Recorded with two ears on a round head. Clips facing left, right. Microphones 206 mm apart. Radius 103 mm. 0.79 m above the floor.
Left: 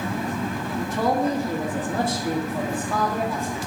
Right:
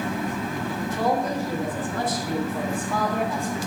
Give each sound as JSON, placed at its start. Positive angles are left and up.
{"t": 0.8, "sound": "a man speaking", "side_deg": 65, "distance_m": 1.3}